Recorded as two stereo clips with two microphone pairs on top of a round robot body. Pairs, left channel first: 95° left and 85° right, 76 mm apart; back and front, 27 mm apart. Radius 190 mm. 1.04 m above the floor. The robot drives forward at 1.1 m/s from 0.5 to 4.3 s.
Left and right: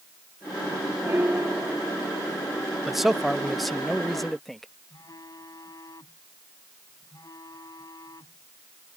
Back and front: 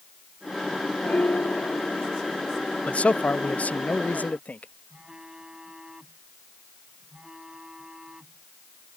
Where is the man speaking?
175° right; by 4.7 s straight behind.